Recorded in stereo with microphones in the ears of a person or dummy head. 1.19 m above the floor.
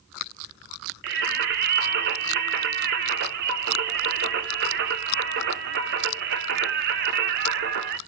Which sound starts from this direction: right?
Singing, at 1.0 s.